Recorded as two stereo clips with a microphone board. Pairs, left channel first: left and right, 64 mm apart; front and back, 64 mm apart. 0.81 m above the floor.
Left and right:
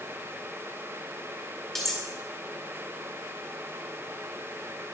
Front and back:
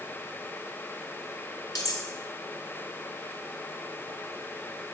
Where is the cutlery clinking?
5° left, 1.7 m.